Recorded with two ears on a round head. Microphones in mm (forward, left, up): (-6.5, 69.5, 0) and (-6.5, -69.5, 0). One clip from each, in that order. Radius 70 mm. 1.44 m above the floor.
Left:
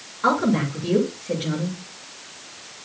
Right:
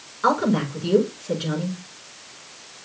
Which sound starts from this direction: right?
A woman speaking, at 0.2 s.